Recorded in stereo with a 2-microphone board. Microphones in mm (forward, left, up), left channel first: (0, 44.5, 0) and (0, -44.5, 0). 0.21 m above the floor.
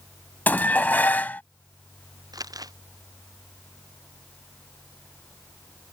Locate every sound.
0.5 s dishes clattering: 20° left (ahead or behind)
2.3 s crumpling: 45° right (ahead or behind)